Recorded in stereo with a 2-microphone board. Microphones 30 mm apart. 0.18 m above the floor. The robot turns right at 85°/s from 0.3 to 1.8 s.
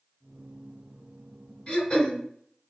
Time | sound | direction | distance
1.7 | throat clearing | 25° left (ahead or behind) | 1.7 m